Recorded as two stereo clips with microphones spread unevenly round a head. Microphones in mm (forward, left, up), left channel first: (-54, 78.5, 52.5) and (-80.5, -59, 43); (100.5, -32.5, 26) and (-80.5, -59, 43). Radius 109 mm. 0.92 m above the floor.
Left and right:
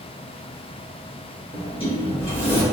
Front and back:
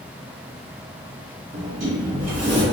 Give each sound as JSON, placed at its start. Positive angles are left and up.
{"t": 1.5, "sound": "a sliding door", "azimuth_deg": 135, "distance_m": 1.6}